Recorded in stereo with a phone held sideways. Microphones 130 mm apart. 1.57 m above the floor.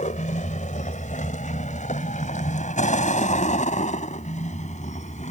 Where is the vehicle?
80° left; by 5.3 s 70° left (ahead or behind).